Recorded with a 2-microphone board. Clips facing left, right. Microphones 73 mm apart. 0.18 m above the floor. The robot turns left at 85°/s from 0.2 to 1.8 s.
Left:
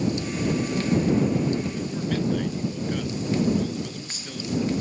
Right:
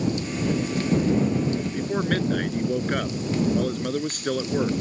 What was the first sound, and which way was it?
A man speaking, 55° right (ahead or behind).